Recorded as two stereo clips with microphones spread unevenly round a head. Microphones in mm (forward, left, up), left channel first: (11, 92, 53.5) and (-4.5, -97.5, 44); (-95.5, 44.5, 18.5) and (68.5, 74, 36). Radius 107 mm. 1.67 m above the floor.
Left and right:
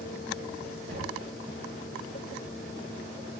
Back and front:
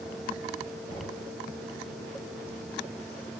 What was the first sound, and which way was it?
Knocking, 95° right.